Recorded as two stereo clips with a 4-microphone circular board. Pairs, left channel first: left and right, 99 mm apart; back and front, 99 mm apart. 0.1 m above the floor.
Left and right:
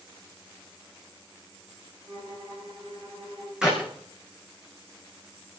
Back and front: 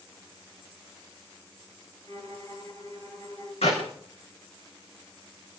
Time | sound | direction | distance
2.1 | a violin | 130° right | 10 m
3.6 | a clap | 175° right | 5.5 m